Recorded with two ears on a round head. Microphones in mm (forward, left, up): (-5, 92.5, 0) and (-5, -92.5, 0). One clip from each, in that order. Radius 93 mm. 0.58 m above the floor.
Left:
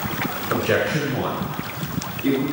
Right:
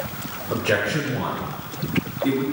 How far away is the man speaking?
About 2 m.